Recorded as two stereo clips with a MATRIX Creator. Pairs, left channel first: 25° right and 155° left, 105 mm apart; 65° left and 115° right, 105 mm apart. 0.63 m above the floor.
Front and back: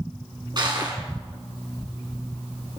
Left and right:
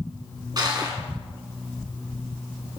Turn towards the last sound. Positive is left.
turn(degrees=-160)